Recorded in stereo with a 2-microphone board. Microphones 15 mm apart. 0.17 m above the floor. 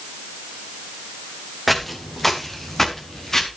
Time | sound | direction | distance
1.7 | footsteps | 10° left (ahead or behind) | 2.5 m